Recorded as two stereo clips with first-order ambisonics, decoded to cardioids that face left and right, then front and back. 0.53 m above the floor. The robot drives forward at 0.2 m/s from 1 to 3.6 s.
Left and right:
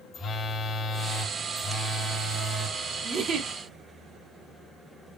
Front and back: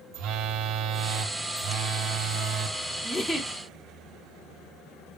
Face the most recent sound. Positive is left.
turn(degrees=-100)